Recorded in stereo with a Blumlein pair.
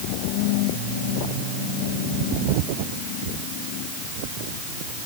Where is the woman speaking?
No woman speaking in this recording.